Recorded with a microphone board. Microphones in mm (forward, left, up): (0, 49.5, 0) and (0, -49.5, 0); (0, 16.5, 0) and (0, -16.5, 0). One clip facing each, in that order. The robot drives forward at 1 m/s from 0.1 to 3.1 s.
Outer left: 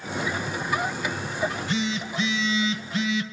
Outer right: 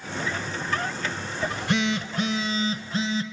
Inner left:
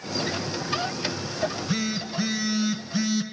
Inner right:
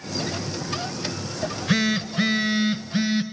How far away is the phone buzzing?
About 1.1 m.